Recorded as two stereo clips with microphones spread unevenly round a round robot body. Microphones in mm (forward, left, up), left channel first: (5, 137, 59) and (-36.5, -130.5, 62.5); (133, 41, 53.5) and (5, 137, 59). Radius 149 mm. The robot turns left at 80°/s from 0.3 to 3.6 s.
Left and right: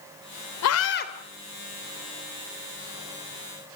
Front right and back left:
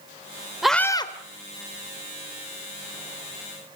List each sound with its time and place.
0.6 s a scream: 55° left, 3 m; by 1.1 s 20° left, 3 m